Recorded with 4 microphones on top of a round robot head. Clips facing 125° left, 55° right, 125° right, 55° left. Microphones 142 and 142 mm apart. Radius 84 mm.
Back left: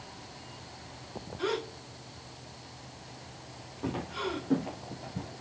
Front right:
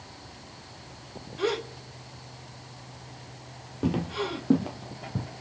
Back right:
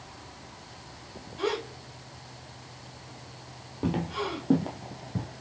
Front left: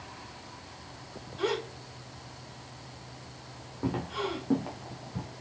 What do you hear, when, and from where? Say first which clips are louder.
1.4 s a gasp: front right 4 dB, back right 1 dB; 40° right, 3 m
3.8 s footsteps: front right 6 dB, back right 2 dB; 60° right, 1.7 m; by 5.3 s 75° right, 2 m